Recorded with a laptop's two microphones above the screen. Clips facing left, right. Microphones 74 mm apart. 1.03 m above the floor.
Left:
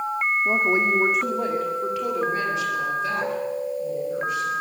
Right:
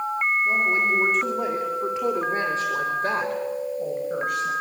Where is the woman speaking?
30° left (ahead or behind), 2.5 m; by 4.5 s 55° right (ahead or behind), 6 m.